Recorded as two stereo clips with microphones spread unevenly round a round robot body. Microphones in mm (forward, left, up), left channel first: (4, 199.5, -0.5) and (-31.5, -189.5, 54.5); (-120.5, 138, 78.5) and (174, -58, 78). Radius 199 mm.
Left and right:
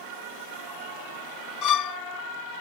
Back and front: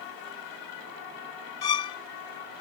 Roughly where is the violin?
Behind left.